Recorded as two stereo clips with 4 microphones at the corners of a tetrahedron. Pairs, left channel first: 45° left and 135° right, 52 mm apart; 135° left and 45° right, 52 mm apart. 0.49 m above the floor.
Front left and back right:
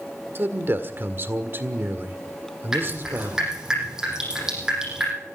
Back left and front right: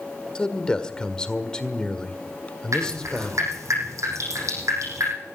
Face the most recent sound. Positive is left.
turn(degrees=-55)